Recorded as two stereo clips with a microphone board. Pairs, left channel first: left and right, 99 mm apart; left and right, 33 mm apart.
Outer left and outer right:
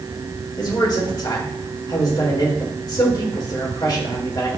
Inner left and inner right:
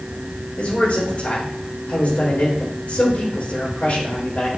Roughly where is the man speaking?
Left.